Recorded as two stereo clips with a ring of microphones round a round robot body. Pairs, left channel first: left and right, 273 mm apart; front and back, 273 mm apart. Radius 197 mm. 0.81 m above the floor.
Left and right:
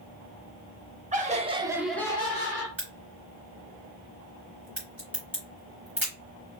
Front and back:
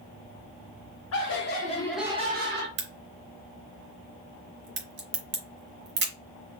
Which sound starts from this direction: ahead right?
Laughter, at 1.1 s.